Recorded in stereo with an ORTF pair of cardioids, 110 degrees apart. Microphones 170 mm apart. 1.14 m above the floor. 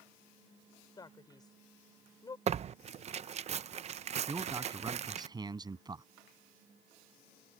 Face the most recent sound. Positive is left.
turn(degrees=-25)